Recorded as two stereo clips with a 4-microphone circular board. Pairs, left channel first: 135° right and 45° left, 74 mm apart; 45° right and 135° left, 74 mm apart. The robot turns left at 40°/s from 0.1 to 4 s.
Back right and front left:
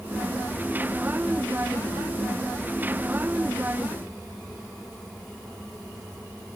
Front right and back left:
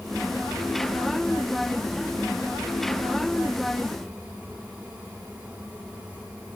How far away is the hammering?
No hammering in this recording.